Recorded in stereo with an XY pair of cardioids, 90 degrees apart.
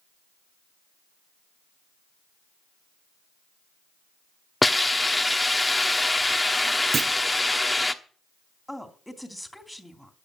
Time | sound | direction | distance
4.6 | a hiss | 15° left | 1.1 m
6.9 | a clunk | 45° right | 0.6 m
8.7 | a woman speaking | 5° left | 2.5 m